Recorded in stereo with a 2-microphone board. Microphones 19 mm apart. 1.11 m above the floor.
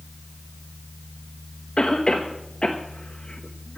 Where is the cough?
55° left (ahead or behind), 1.2 m.